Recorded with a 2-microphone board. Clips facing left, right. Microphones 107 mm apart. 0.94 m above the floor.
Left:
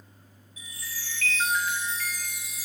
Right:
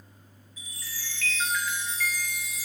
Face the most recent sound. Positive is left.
turn(degrees=70)  # may be behind; listen again after turning